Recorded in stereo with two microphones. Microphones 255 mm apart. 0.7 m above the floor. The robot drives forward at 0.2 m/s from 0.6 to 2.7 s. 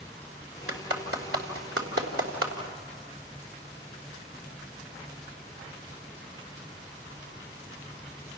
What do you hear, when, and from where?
0.7 s a clap: 65° right (ahead or behind), 2.5 m; by 2.5 s 60° right (ahead or behind), 2.5 m